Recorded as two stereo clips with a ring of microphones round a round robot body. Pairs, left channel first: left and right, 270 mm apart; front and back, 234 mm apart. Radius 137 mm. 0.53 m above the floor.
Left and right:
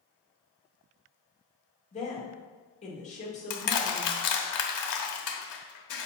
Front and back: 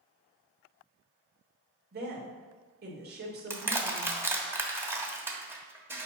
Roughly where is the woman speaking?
Behind left.